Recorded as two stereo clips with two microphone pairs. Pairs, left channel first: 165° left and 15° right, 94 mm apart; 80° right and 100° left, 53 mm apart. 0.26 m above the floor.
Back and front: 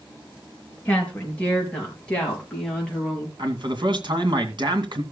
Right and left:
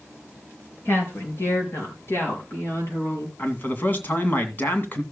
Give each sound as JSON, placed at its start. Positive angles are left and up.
{"t": 0.8, "sound": "a woman speaking", "azimuth_deg": -125, "distance_m": 5.0}
{"t": 3.4, "sound": "a man speaking", "azimuth_deg": -35, "distance_m": 2.0}